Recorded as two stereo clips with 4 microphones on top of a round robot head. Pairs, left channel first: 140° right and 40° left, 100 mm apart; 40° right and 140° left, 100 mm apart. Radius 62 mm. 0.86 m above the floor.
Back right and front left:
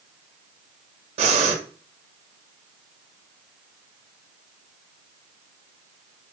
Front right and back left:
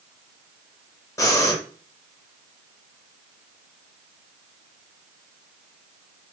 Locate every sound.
1.2 s breathing: 20° left, 0.5 m